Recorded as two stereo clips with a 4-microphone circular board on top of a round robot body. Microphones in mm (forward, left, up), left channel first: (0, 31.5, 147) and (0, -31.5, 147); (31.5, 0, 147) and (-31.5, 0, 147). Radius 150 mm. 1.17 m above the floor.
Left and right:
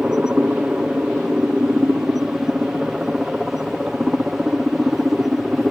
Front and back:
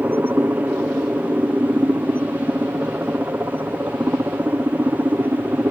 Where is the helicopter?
155° right; by 5.7 s 170° right.